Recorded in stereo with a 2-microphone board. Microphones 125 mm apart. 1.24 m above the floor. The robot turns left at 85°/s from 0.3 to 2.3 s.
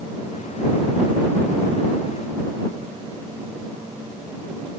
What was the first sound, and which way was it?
Only background noise.